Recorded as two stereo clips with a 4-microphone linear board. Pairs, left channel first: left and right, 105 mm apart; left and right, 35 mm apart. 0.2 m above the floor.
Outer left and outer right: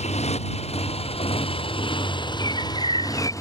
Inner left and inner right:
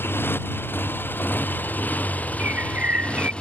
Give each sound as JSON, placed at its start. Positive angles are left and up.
{"t": 0.0, "sound": "a motorcycle", "side_deg": 75}
{"t": 2.4, "sound": "a bird", "side_deg": -50}